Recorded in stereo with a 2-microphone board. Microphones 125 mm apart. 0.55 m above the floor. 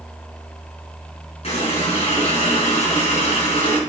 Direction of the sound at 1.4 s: 55° left (ahead or behind).